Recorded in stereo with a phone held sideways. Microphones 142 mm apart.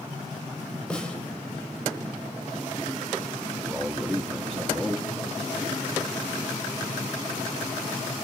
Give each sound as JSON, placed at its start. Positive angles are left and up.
{"t": 0.9, "sound": "a snare drum", "side_deg": 5, "distance_m": 4.0}
{"t": 3.6, "sound": "a man speaking", "side_deg": -5, "distance_m": 1.1}